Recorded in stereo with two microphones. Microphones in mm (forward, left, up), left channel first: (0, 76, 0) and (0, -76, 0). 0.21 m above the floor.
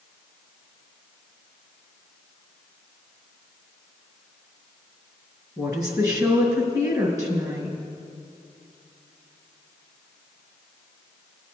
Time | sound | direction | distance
5.6 | a woman speaking | 25° right (ahead or behind) | 2 m